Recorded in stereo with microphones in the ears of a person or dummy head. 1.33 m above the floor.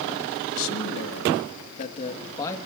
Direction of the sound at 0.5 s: 75° left (ahead or behind).